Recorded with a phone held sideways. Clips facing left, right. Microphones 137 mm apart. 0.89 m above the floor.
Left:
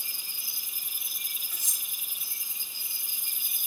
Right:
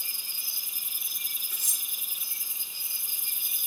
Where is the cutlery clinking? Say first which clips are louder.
Even; 60° right (ahead or behind), 2.0 m.